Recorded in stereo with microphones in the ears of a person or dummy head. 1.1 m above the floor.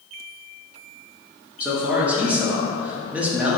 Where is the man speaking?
Centre (ahead or behind), 0.6 m.